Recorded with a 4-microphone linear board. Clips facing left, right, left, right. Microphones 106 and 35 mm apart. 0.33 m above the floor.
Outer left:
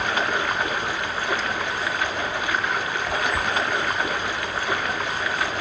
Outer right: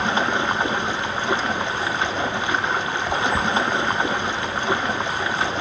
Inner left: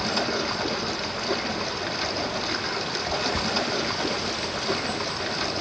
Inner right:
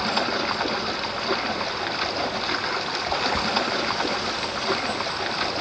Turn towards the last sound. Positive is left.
turn(degrees=-25)  # may be behind; listen again after turning